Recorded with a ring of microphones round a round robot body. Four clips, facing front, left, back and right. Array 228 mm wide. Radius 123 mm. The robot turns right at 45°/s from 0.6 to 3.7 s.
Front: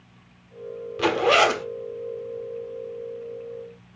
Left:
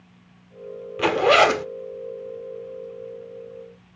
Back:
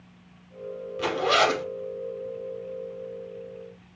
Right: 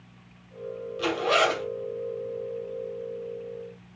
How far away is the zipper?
About 0.8 m.